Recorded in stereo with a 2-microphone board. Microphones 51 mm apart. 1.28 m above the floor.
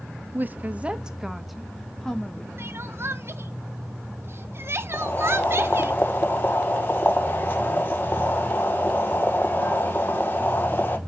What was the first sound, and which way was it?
A woman speaking, 40° right (ahead or behind).